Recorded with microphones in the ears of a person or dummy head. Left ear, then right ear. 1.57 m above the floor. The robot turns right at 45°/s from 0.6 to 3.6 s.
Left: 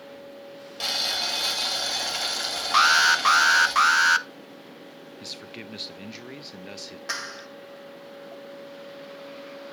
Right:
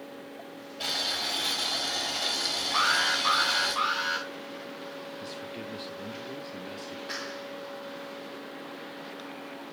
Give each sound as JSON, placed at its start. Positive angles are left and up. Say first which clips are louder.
{"t": 0.8, "sound": "boiling", "louder": "left 4 dB", "azimuth_deg": 50, "distance_m": 2.5}
{"t": 2.7, "sound": "an alarm", "louder": "left 8 dB", "azimuth_deg": 80, "distance_m": 0.6}
{"t": 5.2, "sound": "a man speaking", "louder": "even", "side_deg": 25, "distance_m": 0.6}
{"t": 7.1, "sound": "a clap", "louder": "left 5 dB", "side_deg": 50, "distance_m": 1.3}